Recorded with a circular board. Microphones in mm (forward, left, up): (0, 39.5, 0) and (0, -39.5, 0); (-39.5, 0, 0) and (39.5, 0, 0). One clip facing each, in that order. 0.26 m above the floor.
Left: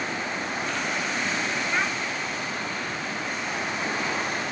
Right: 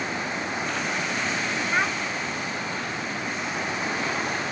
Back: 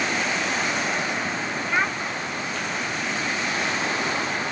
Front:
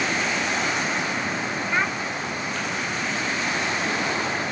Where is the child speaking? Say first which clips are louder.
Right 3 dB, back 1 dB; 110° right, 0.6 m.